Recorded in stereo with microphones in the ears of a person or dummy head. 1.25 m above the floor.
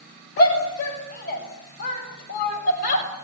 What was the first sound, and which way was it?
A shout, 55° left (ahead or behind).